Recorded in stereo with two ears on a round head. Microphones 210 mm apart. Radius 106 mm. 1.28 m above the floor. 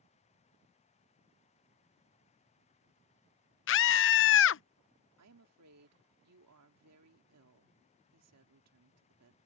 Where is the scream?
55° left (ahead or behind).